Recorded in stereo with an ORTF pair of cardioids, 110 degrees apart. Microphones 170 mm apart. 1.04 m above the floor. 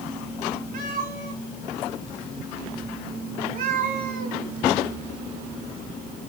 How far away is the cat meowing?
About 3 m.